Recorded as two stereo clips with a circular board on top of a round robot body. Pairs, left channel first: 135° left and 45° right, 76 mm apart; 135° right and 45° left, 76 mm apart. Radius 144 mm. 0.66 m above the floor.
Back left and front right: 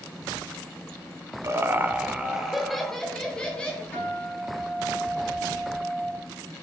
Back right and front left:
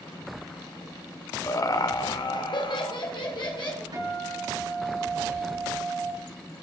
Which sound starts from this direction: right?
Laughter, at 1.4 s.